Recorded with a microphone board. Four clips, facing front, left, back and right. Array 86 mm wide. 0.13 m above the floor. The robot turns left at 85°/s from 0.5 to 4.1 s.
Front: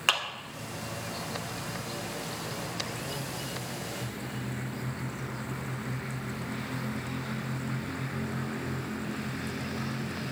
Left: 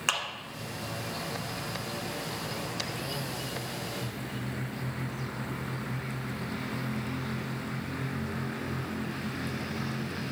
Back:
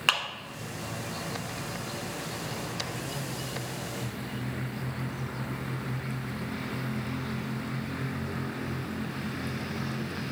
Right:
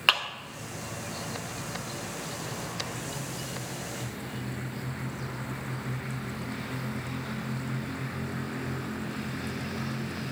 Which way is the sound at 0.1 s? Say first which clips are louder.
Right 5 dB, even; 105° right.